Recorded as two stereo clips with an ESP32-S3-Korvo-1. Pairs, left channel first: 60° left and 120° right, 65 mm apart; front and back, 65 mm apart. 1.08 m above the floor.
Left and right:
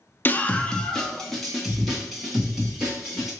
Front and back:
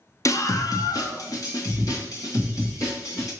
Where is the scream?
10° left, 0.8 m; by 3.3 s 35° right, 4 m.